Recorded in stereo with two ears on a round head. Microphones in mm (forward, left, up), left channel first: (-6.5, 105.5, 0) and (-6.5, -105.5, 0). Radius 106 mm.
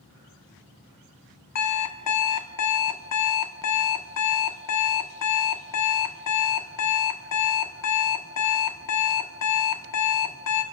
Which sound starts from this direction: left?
An alarm clock, at 1.6 s.